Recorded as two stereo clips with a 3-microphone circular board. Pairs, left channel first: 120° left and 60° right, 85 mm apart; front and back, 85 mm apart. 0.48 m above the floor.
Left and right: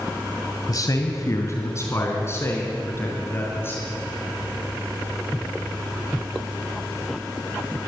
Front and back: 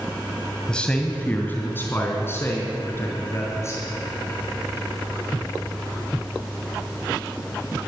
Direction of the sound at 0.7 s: 80° left.